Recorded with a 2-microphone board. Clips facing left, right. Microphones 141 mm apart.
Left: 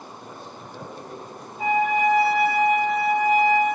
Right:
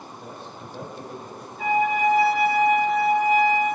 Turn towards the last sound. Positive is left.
turn(degrees=35)  # may be behind; listen again after turning